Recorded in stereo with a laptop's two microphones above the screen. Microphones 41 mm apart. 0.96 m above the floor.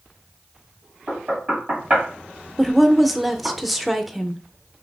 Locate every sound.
1.1 s knocking: 40° right (ahead or behind), 1.7 m
2.6 s a woman speaking: centre (ahead or behind), 0.6 m